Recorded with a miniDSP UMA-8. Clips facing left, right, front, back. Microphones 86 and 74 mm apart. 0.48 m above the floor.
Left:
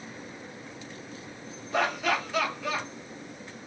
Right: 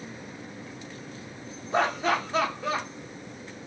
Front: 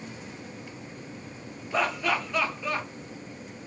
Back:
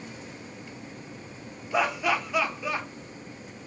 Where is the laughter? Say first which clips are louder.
Right 2 dB, back 1 dB; 105° right, 0.8 m.